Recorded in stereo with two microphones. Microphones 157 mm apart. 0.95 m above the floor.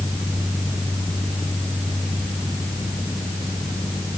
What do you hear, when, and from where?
Only background noise.